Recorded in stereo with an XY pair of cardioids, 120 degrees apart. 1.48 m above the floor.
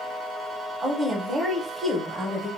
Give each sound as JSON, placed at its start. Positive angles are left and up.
{"t": 0.8, "sound": "a woman speaking", "azimuth_deg": -25, "distance_m": 1.1}